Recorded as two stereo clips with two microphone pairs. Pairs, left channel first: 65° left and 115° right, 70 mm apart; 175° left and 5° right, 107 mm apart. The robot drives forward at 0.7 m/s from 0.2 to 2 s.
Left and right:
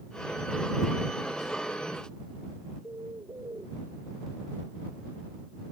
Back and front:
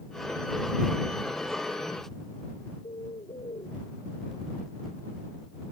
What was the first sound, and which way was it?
A bird, 150° right.